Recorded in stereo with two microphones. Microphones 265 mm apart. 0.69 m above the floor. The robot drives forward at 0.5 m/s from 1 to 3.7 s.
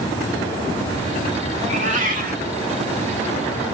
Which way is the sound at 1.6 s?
25° right (ahead or behind).